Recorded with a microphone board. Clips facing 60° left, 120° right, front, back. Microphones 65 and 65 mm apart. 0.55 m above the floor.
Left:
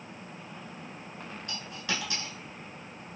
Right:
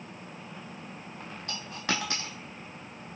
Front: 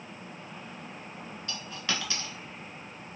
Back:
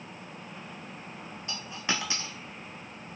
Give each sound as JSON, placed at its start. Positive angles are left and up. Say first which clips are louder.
{"t": 1.5, "sound": "a dropped coin", "louder": "right 3 dB, back 2 dB", "azimuth_deg": -115, "distance_m": 0.7}